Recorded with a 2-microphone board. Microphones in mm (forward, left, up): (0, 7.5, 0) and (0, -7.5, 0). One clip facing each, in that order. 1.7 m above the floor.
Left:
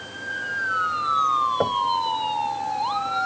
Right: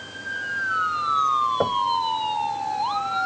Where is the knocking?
Centre (ahead or behind).